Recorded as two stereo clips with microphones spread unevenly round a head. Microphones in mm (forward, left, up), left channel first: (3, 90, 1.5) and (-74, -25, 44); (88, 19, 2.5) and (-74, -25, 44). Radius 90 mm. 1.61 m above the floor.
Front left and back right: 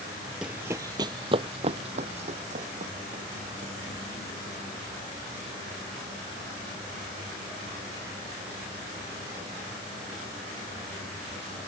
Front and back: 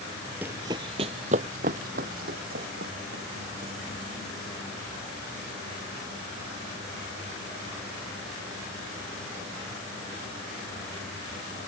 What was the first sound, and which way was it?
Running footsteps, 150° right.